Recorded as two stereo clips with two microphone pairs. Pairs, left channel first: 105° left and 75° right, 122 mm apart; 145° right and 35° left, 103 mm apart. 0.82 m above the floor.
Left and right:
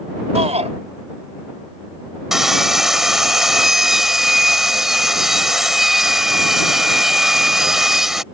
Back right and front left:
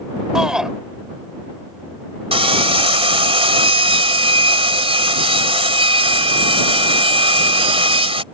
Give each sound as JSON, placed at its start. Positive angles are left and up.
{"t": 0.3, "sound": "a shout", "azimuth_deg": -50}
{"t": 2.3, "sound": "sawing", "azimuth_deg": 10}